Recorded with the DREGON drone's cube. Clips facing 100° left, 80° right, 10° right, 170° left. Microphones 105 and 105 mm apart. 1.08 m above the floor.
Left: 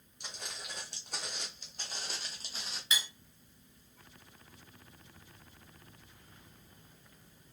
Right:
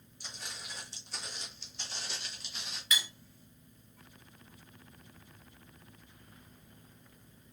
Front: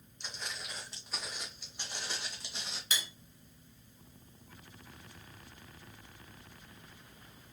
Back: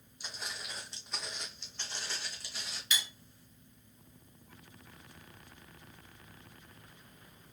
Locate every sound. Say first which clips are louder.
0.2 s footsteps: left 1 dB, even; 90° left, 2.5 m; by 2.8 s 50° left, 2 m
2.9 s cutlery clinking: right 1 dB, back 1 dB; 35° left, 2 m